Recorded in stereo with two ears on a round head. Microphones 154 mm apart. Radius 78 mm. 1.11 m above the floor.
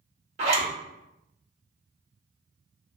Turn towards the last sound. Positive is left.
turn(degrees=-40)  # may be behind; listen again after turning